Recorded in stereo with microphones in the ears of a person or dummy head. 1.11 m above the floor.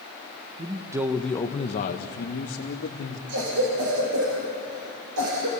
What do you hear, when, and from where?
0.6 s a man speaking: 30° right (ahead or behind), 1.2 m; by 3.2 s 70° left (ahead or behind), 2 m
3.3 s a cough: 75° right (ahead or behind), 4.5 m